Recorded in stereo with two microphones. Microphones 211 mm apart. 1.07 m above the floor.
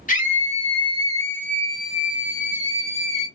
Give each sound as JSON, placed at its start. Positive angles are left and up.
{"t": 0.1, "sound": "a scream", "side_deg": 40, "distance_m": 0.7}